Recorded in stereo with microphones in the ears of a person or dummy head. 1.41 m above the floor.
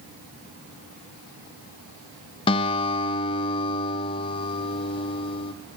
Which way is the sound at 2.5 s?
30° left (ahead or behind).